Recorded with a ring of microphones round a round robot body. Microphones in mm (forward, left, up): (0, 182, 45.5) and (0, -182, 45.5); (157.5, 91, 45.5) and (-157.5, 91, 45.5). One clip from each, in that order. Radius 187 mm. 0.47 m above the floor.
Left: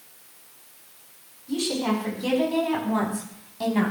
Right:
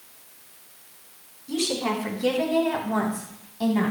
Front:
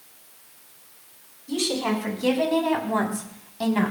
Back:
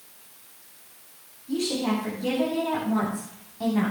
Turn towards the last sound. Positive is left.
turn(degrees=20)